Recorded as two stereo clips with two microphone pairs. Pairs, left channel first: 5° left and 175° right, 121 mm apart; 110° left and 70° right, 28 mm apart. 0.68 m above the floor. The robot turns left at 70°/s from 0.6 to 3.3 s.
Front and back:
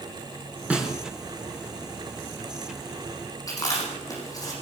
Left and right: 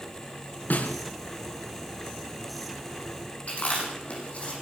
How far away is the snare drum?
About 3.5 m.